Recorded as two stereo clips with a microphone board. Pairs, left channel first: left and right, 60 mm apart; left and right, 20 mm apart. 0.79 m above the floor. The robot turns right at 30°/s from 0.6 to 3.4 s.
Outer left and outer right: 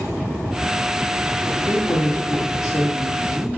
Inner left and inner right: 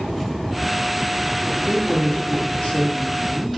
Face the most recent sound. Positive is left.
turn(degrees=115)